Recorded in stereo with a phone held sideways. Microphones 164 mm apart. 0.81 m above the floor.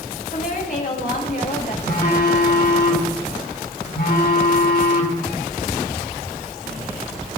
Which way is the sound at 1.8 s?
85° left.